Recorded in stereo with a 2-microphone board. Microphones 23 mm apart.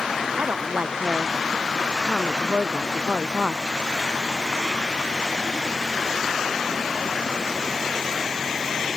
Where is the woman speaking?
75° right (ahead or behind).